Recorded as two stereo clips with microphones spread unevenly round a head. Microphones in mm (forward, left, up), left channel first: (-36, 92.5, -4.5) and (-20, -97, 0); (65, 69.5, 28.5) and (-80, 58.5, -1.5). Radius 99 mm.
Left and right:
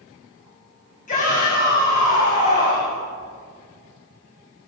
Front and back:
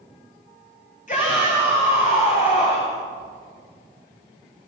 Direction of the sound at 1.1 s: 40° left.